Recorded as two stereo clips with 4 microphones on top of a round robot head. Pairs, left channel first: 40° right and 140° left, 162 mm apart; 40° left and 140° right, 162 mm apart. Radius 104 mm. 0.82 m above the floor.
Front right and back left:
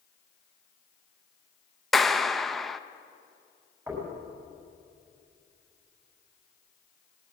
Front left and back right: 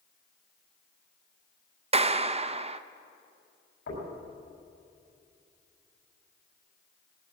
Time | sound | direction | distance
1.9 | a clap | 130° right | 0.8 m
3.9 | knocking | 65° left | 6.5 m